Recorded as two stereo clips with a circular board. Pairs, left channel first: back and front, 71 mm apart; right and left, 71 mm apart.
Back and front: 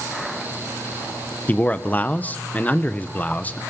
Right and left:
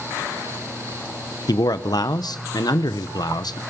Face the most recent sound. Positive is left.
turn(degrees=-115)